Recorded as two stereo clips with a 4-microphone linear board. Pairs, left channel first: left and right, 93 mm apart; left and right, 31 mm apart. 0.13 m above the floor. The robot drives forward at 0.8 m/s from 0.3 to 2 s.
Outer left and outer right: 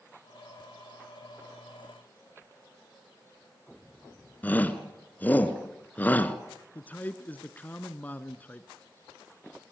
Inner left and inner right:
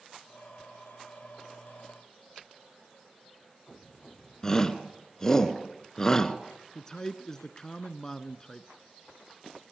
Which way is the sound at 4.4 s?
20° left (ahead or behind).